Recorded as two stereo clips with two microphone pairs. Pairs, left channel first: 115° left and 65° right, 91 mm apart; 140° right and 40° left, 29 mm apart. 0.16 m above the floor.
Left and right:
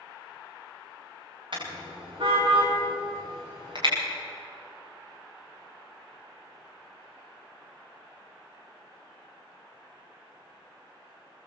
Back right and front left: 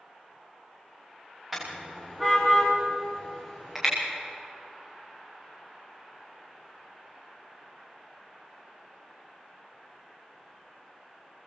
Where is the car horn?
35° right, 9 m.